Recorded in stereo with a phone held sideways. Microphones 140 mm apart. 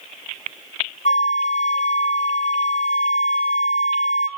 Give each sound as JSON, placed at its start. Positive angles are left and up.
{"t": 1.1, "sound": "a flute", "side_deg": 55, "distance_m": 0.9}